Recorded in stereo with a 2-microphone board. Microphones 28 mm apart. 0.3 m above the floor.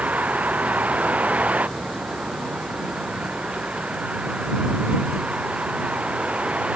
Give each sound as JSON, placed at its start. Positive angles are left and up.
{"t": 0.0, "sound": "a vehicle", "side_deg": -60}